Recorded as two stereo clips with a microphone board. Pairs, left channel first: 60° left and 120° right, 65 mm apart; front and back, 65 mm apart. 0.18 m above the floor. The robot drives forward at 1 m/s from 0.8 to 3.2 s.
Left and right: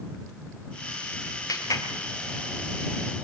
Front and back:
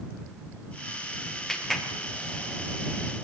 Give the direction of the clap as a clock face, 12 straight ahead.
9 o'clock.